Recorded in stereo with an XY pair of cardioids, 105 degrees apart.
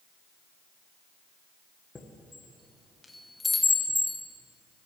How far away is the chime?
About 1.9 m.